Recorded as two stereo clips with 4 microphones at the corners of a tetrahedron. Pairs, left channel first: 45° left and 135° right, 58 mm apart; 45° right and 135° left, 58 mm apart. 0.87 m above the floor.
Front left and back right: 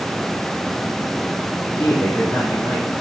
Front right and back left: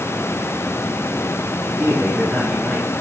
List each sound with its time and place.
1.7 s a man speaking: 55° left, 1.5 m